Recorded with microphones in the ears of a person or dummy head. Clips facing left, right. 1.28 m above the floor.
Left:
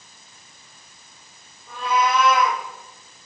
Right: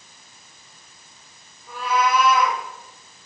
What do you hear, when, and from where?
1.7 s a cat meowing: 5° right (ahead or behind), 5 m